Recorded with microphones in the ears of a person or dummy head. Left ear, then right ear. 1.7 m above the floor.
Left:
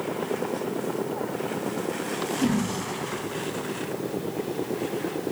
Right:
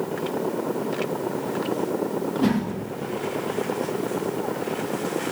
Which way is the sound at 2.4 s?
25° right (ahead or behind).